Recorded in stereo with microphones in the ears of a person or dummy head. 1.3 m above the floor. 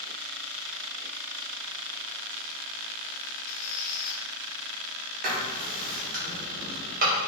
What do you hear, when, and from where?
3.5 s a squeak: 45° left (ahead or behind), 0.6 m
5.2 s writing: 40° right (ahead or behind), 0.8 m